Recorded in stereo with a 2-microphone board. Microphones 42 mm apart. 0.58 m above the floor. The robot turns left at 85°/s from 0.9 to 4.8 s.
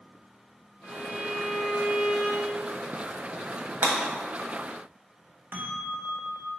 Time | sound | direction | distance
0.8 | a violin | 55° left | 3 m
3.8 | breaking glass | 50° right (ahead or behind) | 1.9 m
5.5 | a bell | 65° right (ahead or behind) | 1.2 m